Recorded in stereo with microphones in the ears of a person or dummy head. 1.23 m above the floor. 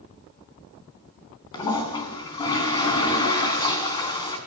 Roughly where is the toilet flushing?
Left.